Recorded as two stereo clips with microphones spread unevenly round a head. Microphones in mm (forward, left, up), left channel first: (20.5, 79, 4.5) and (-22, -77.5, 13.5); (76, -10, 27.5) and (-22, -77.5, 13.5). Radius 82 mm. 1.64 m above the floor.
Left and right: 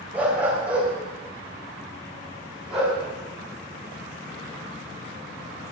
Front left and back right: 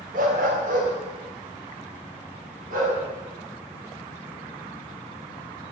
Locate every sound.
0.1 s a dog barking: 175° left, 3.5 m; by 3.0 s 170° left, 6.5 m